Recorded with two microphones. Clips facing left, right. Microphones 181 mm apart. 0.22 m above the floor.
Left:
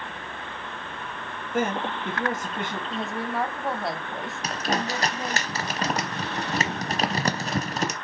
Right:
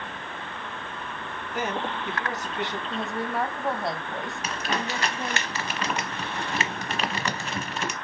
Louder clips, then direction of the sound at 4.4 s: Left 4 dB; 40° left (ahead or behind).